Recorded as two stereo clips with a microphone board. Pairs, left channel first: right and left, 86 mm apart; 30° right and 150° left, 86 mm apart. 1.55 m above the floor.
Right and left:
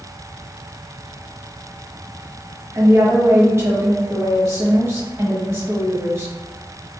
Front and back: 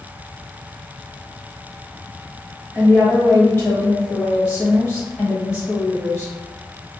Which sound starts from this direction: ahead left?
A woman speaking, at 2.7 s.